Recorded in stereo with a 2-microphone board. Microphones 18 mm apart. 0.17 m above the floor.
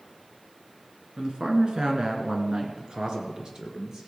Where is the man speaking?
45° right (ahead or behind), 2.5 m; by 4.1 s 40° right (ahead or behind), 3 m.